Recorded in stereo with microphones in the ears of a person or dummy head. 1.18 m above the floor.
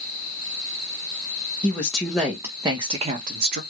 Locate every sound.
1.6 s a woman speaking: 10° left (ahead or behind), 1.0 m; by 3.6 s 50° right (ahead or behind), 0.9 m